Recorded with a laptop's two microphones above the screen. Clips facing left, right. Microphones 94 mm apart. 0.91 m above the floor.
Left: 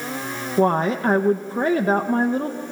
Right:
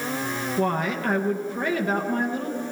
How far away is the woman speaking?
About 0.6 m.